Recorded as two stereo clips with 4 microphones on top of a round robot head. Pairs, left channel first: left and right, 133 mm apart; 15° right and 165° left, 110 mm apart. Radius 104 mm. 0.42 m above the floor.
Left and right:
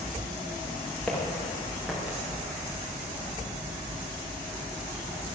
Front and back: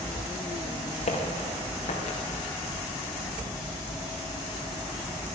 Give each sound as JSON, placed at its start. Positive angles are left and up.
{"t": 1.1, "sound": "footsteps", "azimuth_deg": 5, "distance_m": 4.0}